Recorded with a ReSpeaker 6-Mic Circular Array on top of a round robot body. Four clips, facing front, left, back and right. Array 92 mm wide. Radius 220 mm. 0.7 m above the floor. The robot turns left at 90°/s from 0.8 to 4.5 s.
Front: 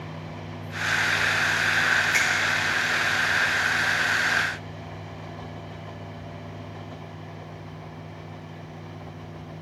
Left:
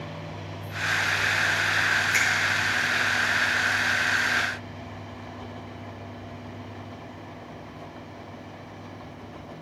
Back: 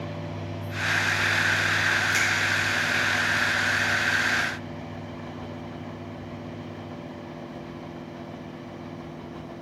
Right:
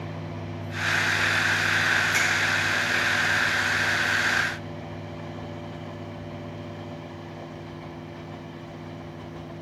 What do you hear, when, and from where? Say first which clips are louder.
2.1 s a finger snap: even, front 1 dB; 25° left, 0.8 m; by 2.3 s 10° left, 0.8 m